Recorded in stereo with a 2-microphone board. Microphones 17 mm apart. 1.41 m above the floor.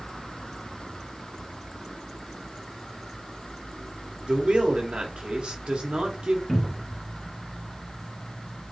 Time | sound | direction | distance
4.3 | a man speaking | 70° right (ahead or behind) | 0.7 m
6.5 | a cupboard door | 10° left (ahead or behind) | 0.8 m